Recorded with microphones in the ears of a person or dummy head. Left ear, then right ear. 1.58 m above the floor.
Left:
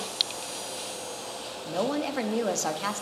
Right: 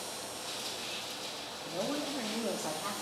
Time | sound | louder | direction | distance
1.6 | a woman speaking | left 7 dB | 65° left (ahead or behind) | 0.6 m